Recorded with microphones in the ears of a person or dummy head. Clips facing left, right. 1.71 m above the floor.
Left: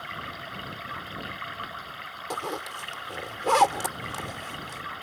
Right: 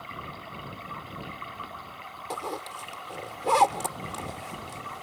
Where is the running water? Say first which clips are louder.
Left 1 dB; 15° left (ahead or behind).